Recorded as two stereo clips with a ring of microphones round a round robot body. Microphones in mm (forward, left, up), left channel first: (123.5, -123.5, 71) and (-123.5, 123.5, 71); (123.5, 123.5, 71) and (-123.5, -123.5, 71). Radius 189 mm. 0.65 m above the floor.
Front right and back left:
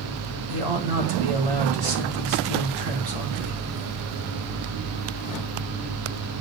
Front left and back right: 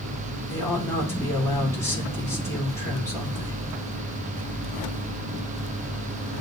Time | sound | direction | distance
0.5 | a man speaking | 125° left | 1.7 m